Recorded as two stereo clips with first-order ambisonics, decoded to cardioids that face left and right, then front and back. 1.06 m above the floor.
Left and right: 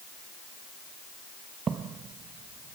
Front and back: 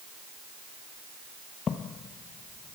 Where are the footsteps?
40° right, 1.2 m; by 2.8 s 55° right, 1.6 m.